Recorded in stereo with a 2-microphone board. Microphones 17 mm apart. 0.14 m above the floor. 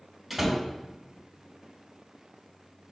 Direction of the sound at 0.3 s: Centre (ahead or behind).